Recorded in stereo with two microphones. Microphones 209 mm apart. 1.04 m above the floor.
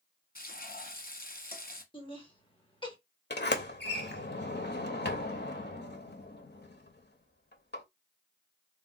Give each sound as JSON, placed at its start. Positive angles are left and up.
{"t": 0.3, "sound": "frying", "side_deg": 45, "distance_m": 1.0}
{"t": 1.9, "sound": "laughter", "side_deg": 25, "distance_m": 1.4}
{"t": 3.3, "sound": "a sliding door", "side_deg": 55, "distance_m": 0.6}